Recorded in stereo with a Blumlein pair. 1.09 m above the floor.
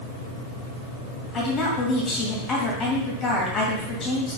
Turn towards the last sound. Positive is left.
turn(degrees=25)